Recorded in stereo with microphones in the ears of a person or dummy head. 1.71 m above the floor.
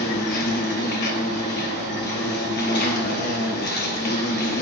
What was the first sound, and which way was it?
An insect, 50° left (ahead or behind).